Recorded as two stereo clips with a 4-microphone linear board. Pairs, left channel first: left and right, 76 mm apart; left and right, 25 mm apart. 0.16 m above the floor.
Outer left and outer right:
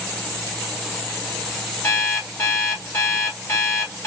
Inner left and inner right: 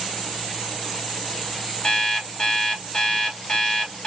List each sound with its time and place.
1.8 s an alarm clock: 40° left (ahead or behind), 1.6 m